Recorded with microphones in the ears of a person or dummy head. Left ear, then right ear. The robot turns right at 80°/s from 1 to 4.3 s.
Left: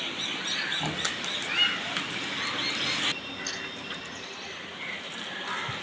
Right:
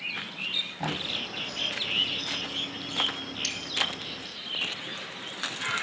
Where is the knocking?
20° right (ahead or behind), 8.5 m; by 1.1 s 15° right (ahead or behind), 8.5 m.